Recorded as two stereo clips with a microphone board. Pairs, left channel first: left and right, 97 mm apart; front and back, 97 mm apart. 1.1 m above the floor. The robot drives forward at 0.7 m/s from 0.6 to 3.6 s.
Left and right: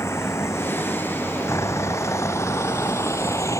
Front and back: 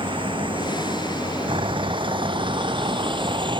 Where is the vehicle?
150° left.